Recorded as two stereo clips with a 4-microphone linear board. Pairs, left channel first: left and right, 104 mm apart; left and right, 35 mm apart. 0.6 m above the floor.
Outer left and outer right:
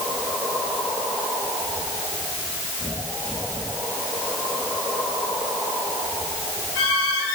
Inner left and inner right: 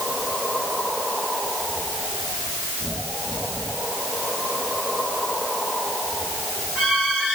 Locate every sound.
Only background noise.